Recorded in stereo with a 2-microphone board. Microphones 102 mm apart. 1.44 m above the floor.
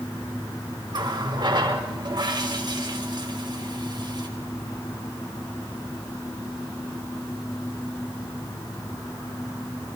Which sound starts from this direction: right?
A running tap, at 0.9 s.